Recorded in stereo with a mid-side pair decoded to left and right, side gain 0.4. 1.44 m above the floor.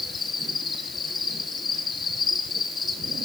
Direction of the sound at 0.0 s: 45° left.